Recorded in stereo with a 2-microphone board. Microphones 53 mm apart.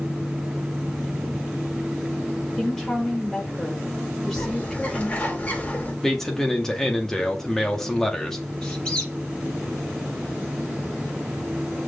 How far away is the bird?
About 4.5 m.